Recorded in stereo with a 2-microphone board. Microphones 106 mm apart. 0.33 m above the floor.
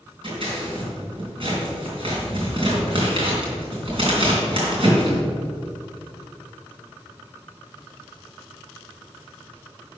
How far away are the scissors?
About 3.5 m.